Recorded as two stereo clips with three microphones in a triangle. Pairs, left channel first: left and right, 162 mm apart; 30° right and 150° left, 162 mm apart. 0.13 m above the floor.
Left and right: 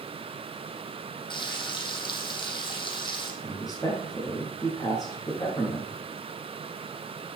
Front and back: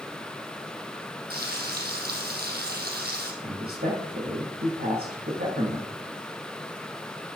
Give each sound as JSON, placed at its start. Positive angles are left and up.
{"t": 1.3, "sound": "frying", "azimuth_deg": 150, "distance_m": 2.5}
{"t": 3.4, "sound": "a man speaking", "azimuth_deg": 155, "distance_m": 5.5}